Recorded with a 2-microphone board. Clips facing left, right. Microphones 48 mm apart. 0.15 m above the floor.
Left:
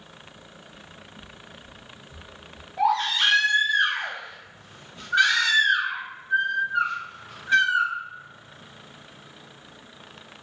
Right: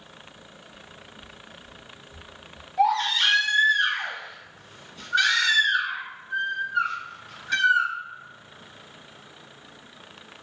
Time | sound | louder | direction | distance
0.7 | footsteps | even | 80° left | 1.1 m
2.8 | a baby crying | right 1 dB | 25° left (ahead or behind) | 1.0 m